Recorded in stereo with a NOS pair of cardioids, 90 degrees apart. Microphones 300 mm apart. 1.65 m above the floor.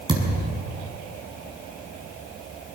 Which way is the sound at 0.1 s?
15° right.